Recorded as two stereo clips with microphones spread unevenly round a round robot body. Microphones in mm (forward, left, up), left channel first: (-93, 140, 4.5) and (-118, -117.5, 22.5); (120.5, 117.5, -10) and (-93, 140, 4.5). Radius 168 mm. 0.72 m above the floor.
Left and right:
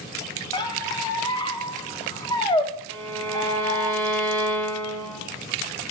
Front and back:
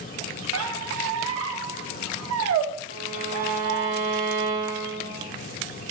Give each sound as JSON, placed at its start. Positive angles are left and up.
{"t": 0.5, "sound": "a squeak", "azimuth_deg": 160, "distance_m": 0.5}
{"t": 2.9, "sound": "a violin", "azimuth_deg": -80, "distance_m": 1.1}